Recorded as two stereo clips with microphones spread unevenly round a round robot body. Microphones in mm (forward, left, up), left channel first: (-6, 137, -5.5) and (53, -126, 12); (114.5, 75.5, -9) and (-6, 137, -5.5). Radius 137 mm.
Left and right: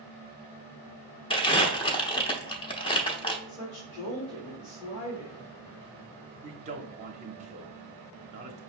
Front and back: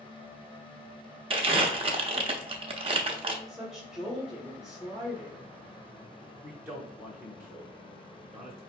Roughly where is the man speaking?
Behind right.